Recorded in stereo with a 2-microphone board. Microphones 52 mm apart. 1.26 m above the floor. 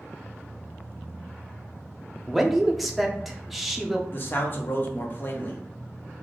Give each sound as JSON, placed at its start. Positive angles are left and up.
{"t": 2.3, "sound": "a man speaking", "side_deg": 0, "distance_m": 0.6}
{"t": 4.1, "sound": "a man speaking", "side_deg": 40, "distance_m": 0.8}